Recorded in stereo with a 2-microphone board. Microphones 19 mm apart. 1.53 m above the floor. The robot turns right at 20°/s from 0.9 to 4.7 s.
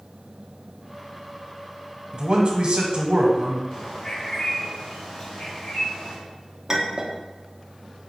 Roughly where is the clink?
Right.